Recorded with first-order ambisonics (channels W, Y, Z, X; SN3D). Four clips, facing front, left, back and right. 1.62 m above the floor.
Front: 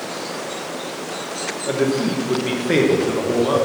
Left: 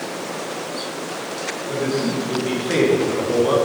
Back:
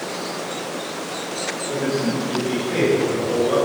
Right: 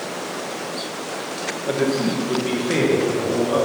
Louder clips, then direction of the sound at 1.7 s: Right 2 dB, front 4 dB; 45° right.